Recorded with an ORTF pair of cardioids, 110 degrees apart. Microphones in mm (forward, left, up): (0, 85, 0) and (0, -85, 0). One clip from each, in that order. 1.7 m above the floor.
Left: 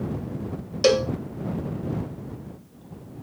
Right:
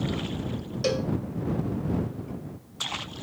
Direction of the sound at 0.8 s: 35° left.